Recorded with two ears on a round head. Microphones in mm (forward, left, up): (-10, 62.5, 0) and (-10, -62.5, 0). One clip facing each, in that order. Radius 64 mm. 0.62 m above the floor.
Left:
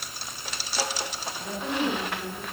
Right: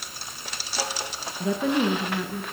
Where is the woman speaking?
65° right (ahead or behind), 8 m; by 2.4 s 60° right (ahead or behind), 7 m.